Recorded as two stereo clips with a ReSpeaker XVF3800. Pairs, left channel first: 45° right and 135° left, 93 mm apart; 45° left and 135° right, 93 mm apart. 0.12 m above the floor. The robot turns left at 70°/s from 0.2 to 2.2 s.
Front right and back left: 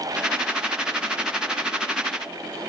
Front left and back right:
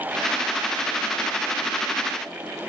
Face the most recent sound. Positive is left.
No sound to turn to.